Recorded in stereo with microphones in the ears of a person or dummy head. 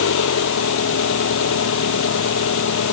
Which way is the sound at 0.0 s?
75° left (ahead or behind).